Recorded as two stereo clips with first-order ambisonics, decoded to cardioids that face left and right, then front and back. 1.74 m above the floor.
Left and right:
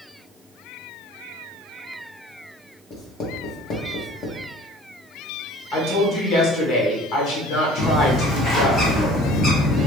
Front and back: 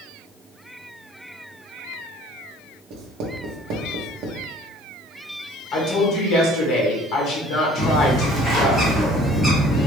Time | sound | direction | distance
2.9 | writing | 140° left | 0.8 m
5.7 | a woman speaking | 50° left | 1.2 m
7.8 | a bird | 100° left | 1.0 m